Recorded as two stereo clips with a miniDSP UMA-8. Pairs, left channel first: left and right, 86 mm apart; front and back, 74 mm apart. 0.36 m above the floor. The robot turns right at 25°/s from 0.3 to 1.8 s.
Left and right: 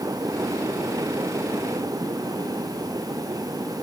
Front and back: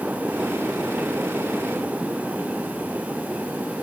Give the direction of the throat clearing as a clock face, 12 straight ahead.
I don't hear throat clearing.